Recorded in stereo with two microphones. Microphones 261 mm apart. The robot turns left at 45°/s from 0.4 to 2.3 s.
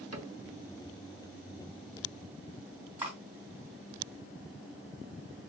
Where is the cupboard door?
70° right (ahead or behind), 1.2 m.